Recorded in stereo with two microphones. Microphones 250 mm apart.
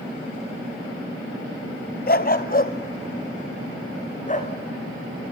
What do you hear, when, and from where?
2.1 s a dog barking: 40° left (ahead or behind), 0.8 m; by 4.5 s 30° left (ahead or behind), 3 m